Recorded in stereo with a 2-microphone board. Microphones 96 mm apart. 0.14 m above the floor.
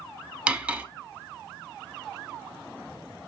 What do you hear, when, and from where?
0.5 s cutlery clinking: 10° right (ahead or behind), 0.7 m